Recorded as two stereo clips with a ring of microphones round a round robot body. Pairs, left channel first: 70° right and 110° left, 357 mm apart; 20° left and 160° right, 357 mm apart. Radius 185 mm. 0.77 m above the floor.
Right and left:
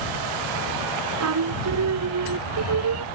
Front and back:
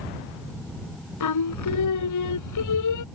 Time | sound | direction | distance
1.2 | singing | 65° left | ?